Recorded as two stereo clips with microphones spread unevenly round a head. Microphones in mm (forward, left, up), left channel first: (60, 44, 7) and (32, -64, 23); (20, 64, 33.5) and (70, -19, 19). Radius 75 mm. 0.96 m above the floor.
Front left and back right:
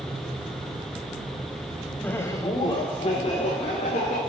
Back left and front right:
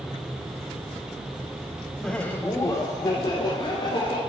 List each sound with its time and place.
2.0 s laughter: 25° left, 0.7 m; by 4.2 s 80° left, 1.8 m